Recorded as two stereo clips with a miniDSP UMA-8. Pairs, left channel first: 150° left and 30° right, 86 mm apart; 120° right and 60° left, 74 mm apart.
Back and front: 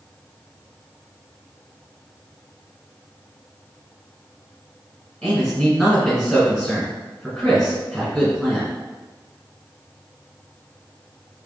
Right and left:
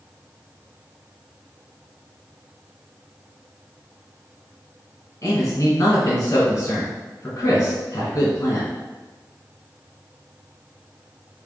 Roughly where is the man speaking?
Behind right.